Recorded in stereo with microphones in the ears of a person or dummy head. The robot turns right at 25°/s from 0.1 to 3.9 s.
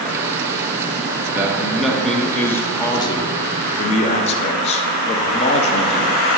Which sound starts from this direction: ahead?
A man speaking, at 1.3 s.